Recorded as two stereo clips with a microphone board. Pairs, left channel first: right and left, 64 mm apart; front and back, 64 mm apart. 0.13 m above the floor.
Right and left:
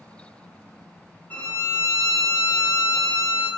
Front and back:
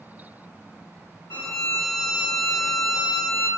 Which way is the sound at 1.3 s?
35° right.